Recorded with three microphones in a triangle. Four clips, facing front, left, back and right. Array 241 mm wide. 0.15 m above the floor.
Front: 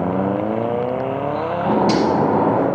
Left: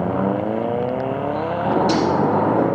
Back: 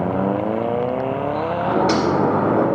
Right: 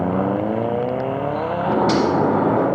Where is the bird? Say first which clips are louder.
Even, front 2 dB; 20° left, 1.6 m.